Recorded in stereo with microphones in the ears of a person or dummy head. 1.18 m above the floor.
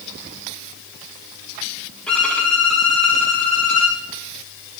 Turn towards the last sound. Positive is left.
turn(degrees=5)  # may be behind; listen again after turning